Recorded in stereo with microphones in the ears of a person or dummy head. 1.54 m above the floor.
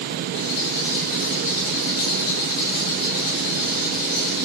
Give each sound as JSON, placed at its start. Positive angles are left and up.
{"t": 0.3, "sound": "a rattle", "side_deg": 25, "distance_m": 1.4}